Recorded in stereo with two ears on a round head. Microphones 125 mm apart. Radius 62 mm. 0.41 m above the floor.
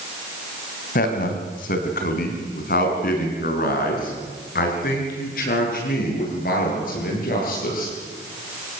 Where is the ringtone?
No ringtone in this recording.